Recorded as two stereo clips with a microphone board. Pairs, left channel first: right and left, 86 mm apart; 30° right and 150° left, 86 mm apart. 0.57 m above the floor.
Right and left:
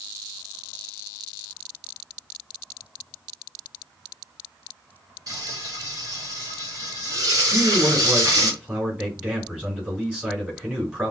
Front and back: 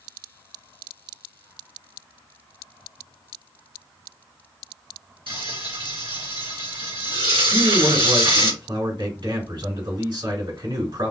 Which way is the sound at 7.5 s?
165° left.